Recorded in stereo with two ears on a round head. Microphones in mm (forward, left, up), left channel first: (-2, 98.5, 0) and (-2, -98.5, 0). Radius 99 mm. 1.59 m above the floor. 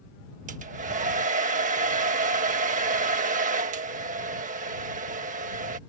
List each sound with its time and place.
0.5 s a hair dryer: 40° right (ahead or behind)